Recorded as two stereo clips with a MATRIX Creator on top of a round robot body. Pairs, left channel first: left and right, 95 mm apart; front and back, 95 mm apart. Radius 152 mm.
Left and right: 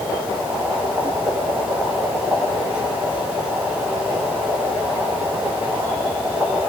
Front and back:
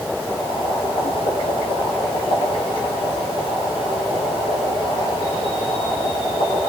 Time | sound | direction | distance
0.2 | boiling | 15° right | 10 m